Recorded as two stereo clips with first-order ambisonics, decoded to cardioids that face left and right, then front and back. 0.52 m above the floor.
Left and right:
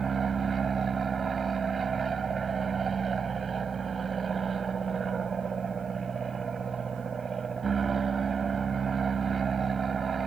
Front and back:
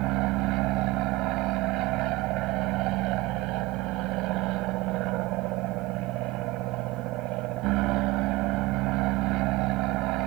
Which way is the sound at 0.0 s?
160° right.